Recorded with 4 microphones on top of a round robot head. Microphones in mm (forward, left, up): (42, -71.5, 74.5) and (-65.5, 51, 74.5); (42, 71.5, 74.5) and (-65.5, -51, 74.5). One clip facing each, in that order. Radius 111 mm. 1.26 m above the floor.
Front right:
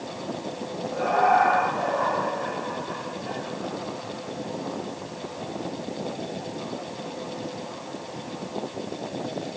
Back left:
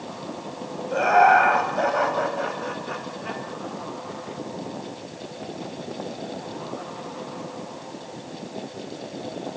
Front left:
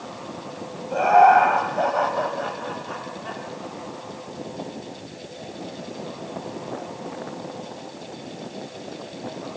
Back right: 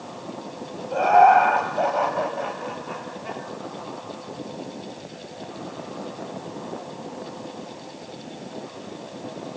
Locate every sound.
0.9 s laughter: 135° left, 7 m; by 3.4 s 155° left, 5.5 m